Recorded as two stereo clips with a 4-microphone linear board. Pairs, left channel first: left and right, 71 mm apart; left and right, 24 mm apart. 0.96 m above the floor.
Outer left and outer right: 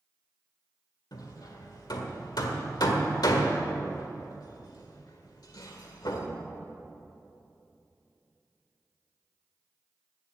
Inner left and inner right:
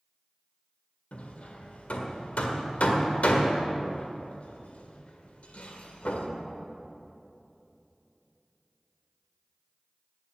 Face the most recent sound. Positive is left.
turn(degrees=75)  # may be behind; listen again after turning